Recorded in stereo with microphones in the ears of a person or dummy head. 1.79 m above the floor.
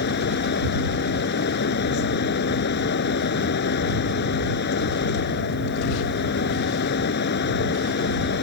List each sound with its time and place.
0.0 s a fan: 55° left (ahead or behind)